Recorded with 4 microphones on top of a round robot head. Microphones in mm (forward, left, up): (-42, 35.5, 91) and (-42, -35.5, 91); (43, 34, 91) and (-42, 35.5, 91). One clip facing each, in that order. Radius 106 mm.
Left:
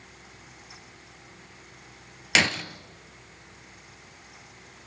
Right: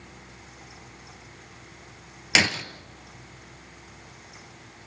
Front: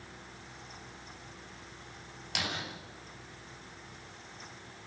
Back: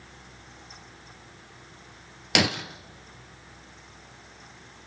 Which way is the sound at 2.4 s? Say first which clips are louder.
Even, back 12 dB; 175° right.